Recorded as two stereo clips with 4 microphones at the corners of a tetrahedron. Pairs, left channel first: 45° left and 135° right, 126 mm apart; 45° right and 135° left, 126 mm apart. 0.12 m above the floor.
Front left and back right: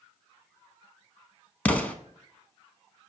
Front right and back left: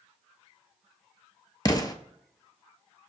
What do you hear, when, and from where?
1.6 s an explosion: 25° right, 0.5 m